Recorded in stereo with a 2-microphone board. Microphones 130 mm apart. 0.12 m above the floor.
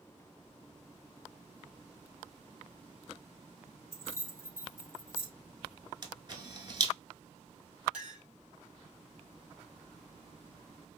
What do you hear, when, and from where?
3.9 s keys jangling: 20° left (ahead or behind), 2 m
6.0 s a camera shutter: 35° right (ahead or behind), 0.8 m
7.9 s a clink: 5° right (ahead or behind), 1.7 m